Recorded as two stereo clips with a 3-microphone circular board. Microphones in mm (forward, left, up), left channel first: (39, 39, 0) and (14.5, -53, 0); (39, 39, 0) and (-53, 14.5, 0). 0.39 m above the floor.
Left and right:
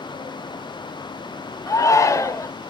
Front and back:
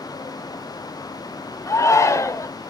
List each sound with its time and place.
1.7 s a shout: 45° left, 1.1 m